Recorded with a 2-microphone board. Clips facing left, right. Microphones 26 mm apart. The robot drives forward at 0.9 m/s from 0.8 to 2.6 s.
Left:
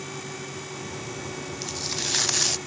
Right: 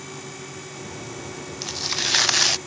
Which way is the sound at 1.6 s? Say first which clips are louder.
Right 6 dB; 25° right (ahead or behind).